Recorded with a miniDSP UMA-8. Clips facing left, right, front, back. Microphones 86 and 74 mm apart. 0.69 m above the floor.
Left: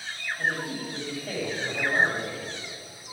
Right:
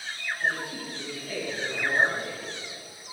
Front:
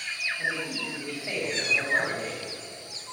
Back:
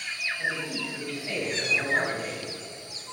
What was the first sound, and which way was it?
A man speaking, 75° left.